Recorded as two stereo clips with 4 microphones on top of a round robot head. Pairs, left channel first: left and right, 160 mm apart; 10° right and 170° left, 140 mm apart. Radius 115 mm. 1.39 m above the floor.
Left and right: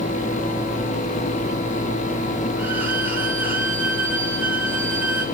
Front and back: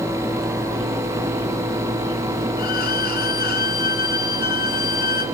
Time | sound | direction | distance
2.6 | a violin | 10° right | 3.5 m